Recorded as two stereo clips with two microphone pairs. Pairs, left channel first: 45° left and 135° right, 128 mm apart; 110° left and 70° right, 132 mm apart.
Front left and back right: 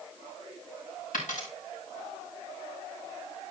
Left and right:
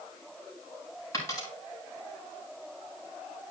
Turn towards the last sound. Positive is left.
turn(degrees=45)